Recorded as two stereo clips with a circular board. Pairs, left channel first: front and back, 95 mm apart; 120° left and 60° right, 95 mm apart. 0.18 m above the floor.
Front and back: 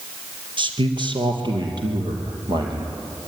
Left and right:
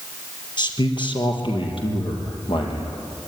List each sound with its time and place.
0.6 s a man speaking: 155° left, 4 m; by 3.0 s 140° left, 6 m